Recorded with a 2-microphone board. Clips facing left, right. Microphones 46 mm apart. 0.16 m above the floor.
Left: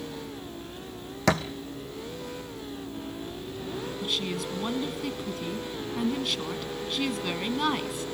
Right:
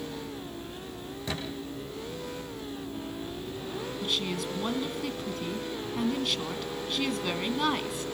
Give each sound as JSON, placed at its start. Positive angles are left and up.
{"t": 1.3, "sound": "a thud", "side_deg": 75, "distance_m": 1.4}
{"t": 4.0, "sound": "a woman speaking", "side_deg": 5, "distance_m": 1.1}